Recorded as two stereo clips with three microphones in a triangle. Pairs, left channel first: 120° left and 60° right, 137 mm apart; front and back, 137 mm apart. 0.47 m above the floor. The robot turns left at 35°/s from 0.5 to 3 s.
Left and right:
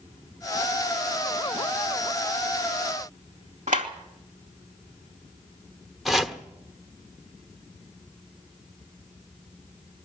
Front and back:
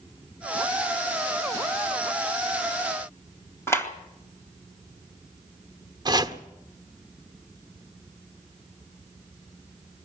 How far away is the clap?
About 2 m.